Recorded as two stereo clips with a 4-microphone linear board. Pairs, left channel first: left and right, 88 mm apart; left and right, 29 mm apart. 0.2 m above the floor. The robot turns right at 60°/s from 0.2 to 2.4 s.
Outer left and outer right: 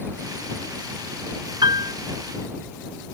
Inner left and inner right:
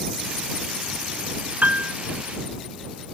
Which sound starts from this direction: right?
A piano, at 1.6 s.